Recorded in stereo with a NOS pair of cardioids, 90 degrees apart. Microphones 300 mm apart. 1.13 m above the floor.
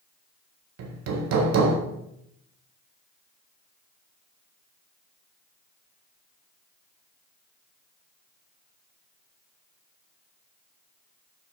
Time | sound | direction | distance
0.8 | hammering | 60° right | 1.6 m